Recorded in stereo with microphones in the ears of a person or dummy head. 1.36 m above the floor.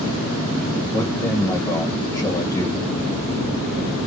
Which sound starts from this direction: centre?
A man speaking, at 0.9 s.